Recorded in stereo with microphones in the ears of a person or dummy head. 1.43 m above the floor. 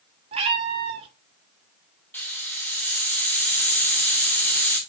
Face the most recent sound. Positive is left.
turn(degrees=10)  # may be behind; listen again after turning